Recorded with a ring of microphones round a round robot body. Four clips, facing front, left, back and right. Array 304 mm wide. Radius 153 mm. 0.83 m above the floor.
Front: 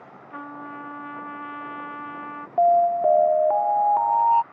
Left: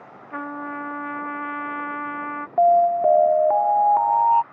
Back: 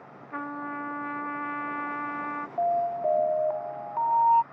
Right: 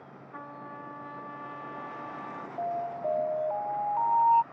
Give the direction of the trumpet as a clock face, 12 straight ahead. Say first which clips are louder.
Left 13 dB, back 2 dB; 9 o'clock.